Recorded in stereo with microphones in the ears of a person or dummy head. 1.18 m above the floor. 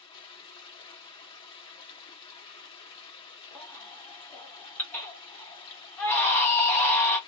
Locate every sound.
0.0 s running water: 25° left (ahead or behind), 0.7 m
3.5 s a baby crying: 5° left (ahead or behind), 0.5 m